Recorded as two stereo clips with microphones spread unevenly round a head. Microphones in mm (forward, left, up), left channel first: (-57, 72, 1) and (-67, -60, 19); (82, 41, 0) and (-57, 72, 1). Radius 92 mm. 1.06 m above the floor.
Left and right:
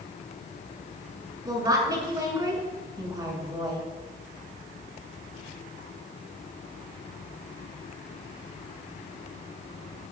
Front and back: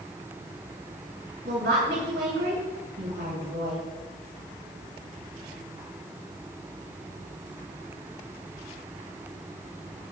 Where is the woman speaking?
155° right, 6.5 m.